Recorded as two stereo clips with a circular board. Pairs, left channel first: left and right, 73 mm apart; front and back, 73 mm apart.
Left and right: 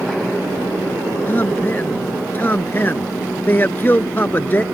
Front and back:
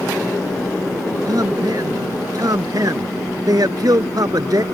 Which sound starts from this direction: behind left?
A man speaking, at 1.3 s.